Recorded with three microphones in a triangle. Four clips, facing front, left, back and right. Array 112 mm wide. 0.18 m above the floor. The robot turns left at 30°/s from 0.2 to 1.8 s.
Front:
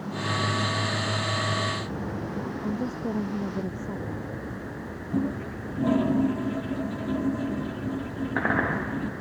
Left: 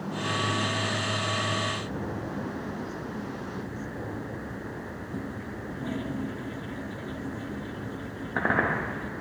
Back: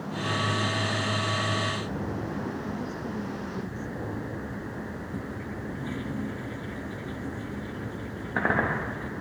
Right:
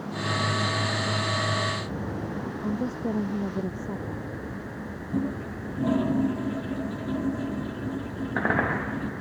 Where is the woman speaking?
60° right.